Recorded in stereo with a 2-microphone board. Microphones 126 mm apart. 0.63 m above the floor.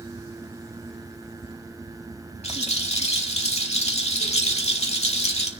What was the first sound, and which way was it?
A rattle, 60° left (ahead or behind).